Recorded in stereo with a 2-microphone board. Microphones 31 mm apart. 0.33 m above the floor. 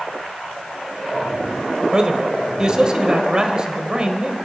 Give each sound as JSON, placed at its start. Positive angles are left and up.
{"t": 1.9, "sound": "a man speaking", "side_deg": -25, "distance_m": 1.4}